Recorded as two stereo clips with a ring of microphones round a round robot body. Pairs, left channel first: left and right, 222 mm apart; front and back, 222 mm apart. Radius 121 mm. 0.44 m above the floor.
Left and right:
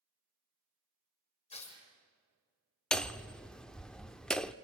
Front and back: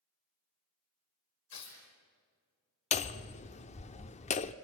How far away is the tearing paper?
About 7 m.